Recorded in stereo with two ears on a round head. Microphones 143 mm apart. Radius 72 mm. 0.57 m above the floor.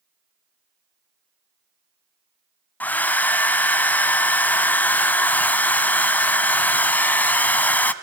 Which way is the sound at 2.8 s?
10° left (ahead or behind).